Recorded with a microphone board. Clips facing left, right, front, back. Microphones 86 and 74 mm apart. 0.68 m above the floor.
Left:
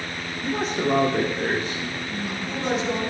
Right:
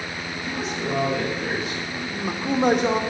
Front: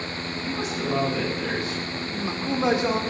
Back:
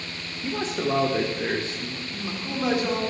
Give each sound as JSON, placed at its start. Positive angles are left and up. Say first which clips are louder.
{"t": 0.4, "sound": "a man speaking", "louder": "left 5 dB, back 3 dB", "azimuth_deg": 130, "distance_m": 2.0}
{"t": 2.1, "sound": "a man speaking", "louder": "right 4 dB, front 7 dB", "azimuth_deg": -65, "distance_m": 2.0}